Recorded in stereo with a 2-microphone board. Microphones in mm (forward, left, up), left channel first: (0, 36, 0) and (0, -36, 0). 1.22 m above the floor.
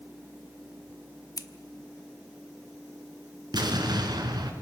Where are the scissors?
60° left (ahead or behind), 1.2 m.